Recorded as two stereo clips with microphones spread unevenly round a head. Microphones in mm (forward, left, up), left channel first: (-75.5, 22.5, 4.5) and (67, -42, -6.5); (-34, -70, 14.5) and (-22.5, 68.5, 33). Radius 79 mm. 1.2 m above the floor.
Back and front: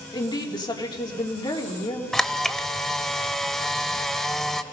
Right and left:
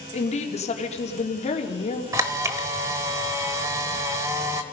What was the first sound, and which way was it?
A woman speaking, 140° right.